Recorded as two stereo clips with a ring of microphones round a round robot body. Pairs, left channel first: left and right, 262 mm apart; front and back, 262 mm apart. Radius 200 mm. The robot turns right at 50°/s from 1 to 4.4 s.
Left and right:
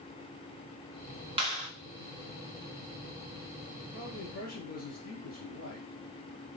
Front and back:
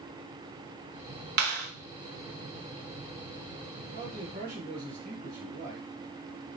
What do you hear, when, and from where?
1.4 s a clap: 155° right, 0.8 m; by 1.7 s 140° right, 0.8 m
3.9 s a man speaking: 110° left, 2.5 m; by 5.9 s 135° left, 2.5 m